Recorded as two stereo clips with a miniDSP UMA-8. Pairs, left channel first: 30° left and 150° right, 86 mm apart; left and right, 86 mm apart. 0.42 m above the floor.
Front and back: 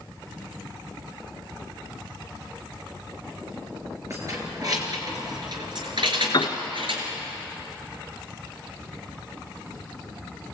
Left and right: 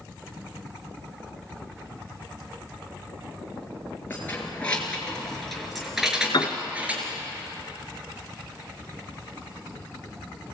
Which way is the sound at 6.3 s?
60° left.